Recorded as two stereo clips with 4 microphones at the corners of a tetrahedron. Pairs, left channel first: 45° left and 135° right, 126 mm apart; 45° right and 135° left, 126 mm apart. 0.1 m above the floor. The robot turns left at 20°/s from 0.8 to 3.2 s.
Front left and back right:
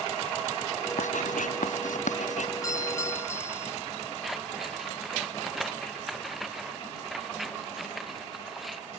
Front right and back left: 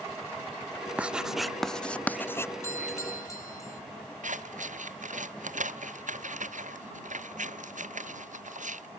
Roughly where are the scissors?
Behind left.